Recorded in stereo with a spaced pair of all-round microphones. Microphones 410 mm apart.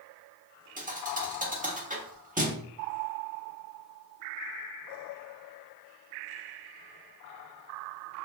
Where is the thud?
20° right (ahead or behind), 0.9 m.